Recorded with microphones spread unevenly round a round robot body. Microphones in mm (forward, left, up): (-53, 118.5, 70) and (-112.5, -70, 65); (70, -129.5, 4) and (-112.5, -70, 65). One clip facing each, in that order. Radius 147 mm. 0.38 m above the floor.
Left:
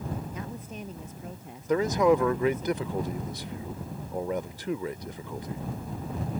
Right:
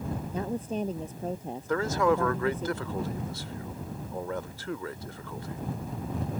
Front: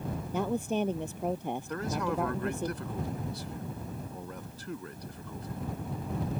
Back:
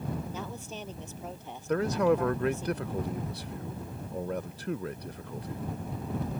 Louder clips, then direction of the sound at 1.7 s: Left 3 dB, back 10 dB; 140° left.